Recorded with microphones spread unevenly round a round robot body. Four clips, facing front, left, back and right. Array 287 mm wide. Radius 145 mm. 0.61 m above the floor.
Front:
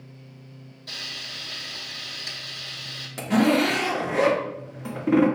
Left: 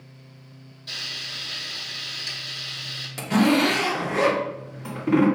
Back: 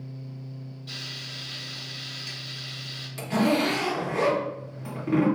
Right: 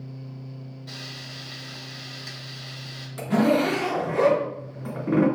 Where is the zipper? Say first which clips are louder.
Left 1 dB, front 3 dB; 15° left, 1.6 m.